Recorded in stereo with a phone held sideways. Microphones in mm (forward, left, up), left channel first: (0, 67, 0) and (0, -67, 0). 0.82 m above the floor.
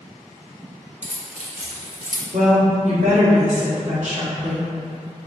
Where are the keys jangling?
55° right (ahead or behind), 1.2 m; by 2.2 s 80° right, 1.0 m.